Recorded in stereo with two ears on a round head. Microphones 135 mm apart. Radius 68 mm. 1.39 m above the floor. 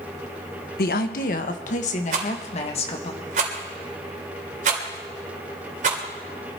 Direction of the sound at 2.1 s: 55° right (ahead or behind).